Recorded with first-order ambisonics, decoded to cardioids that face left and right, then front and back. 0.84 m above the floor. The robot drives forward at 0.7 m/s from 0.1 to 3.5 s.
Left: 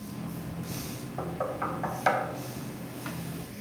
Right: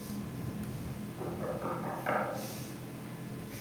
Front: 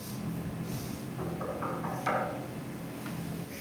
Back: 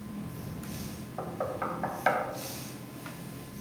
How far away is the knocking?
About 2.5 m.